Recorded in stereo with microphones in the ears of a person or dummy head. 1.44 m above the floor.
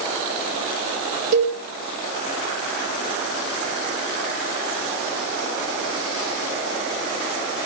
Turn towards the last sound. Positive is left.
turn(degrees=-55)  # may be behind; listen again after turning